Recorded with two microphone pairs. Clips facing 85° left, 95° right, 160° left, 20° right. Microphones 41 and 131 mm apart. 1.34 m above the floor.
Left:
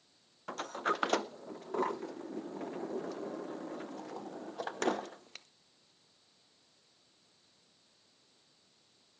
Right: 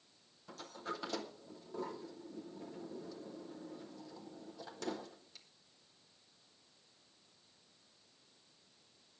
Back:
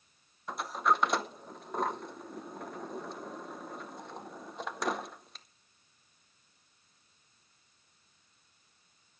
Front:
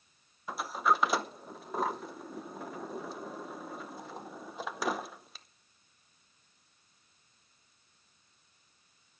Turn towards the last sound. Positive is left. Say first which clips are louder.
# left 10 dB, even
turn(degrees=65)